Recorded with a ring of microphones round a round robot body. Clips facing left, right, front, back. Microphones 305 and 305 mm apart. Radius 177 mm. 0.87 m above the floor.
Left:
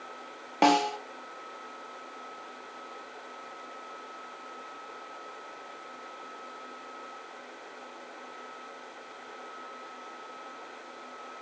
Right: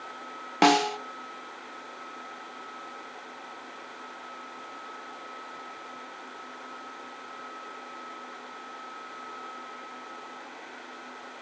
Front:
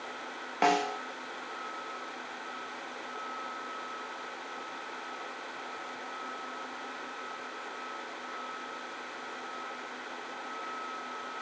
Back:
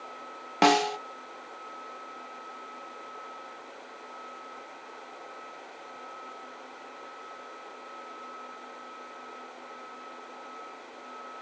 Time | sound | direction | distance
0.6 | a snare drum | 145° right | 1.0 m